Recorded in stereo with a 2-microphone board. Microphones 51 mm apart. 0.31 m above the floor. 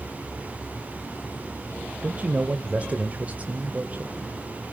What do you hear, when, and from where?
2.0 s a man speaking: 25° right (ahead or behind), 1.4 m